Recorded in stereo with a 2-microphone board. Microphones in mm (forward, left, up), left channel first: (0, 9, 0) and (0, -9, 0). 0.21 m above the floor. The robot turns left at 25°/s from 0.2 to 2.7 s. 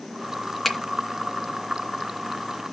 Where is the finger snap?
10° left (ahead or behind), 2.5 m; by 0.8 s 5° left (ahead or behind), 2.5 m.